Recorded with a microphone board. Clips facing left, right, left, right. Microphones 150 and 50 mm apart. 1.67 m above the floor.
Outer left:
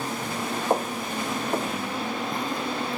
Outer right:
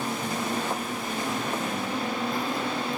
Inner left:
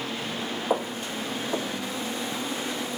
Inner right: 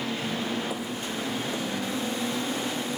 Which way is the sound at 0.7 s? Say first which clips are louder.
Outer left 5 dB, inner left 4 dB; 45° left (ahead or behind).